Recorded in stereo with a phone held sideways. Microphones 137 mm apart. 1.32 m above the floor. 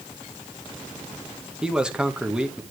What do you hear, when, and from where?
1.6 s a man speaking: 5° right (ahead or behind), 1.6 m